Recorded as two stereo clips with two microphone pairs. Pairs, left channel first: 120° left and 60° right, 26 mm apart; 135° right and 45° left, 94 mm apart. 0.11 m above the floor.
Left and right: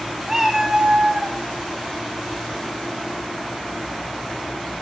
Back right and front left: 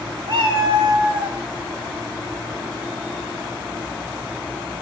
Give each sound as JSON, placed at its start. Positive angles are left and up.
{"t": 0.3, "sound": "a cat meowing", "azimuth_deg": 10, "distance_m": 2.5}